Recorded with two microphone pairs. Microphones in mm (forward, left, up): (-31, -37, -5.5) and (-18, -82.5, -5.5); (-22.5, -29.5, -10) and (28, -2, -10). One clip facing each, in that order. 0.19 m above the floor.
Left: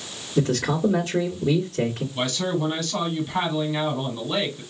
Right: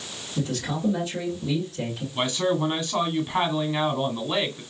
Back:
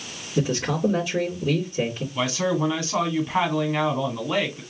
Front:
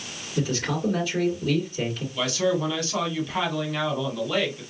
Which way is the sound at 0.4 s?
145° left.